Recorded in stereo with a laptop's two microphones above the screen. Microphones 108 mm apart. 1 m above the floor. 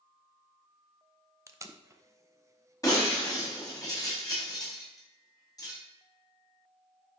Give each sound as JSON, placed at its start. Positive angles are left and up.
{"t": 1.5, "sound": "tape being pulled", "side_deg": -25, "distance_m": 0.8}
{"t": 2.8, "sound": "breaking glass", "side_deg": 35, "distance_m": 4.0}